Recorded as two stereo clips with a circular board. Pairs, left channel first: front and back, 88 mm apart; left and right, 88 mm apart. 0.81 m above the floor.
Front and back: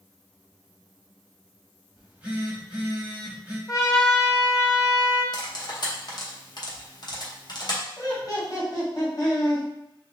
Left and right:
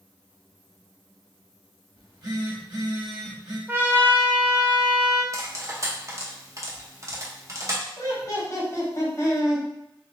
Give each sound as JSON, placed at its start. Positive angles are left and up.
{"t": 2.0, "sound": "a phone buzzing", "azimuth_deg": -110, "distance_m": 1.2}
{"t": 3.7, "sound": "a trumpet", "azimuth_deg": -40, "distance_m": 0.7}
{"t": 5.3, "sound": "cutlery clinking", "azimuth_deg": -40, "distance_m": 0.7}
{"t": 8.0, "sound": "laughter", "azimuth_deg": 40, "distance_m": 1.7}